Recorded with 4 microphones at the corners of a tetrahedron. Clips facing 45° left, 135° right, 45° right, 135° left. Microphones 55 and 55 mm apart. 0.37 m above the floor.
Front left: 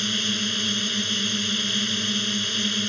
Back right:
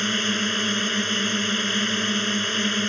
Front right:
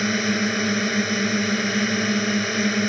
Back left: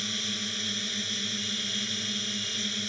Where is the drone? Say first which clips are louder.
Back right 3 dB, front right 14 dB; 80° right.